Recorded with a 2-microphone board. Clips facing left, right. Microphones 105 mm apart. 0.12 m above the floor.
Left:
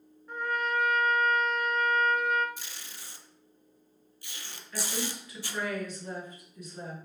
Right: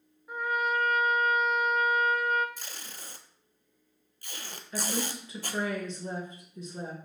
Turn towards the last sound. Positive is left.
turn(degrees=-30)  # may be behind; listen again after turning